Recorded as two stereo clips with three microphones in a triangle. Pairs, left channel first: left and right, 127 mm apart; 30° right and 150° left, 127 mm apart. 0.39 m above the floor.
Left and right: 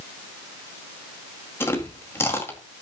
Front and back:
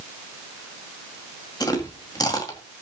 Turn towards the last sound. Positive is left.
turn(degrees=25)